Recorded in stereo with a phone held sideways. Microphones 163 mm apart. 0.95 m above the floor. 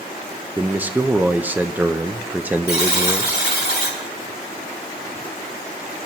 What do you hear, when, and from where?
0.6 s a man speaking: 10° right (ahead or behind), 0.5 m
2.7 s a buzzer: 70° left (ahead or behind), 3.5 m